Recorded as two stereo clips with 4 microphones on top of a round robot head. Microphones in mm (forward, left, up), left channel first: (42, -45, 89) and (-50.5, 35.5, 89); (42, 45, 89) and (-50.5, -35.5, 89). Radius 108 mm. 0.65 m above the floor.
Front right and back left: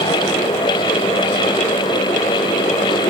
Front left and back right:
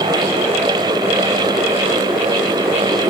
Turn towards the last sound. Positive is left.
No sound to turn to.